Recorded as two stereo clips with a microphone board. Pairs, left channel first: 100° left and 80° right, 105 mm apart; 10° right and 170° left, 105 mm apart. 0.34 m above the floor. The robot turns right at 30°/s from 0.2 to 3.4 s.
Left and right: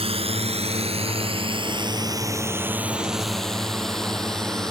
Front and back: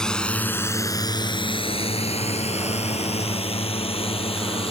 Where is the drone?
95° right; by 4.7 s 15° left.